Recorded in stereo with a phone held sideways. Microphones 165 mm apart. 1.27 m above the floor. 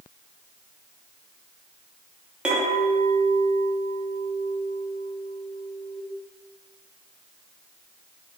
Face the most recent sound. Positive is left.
turn(degrees=-5)  # may be behind; listen again after turning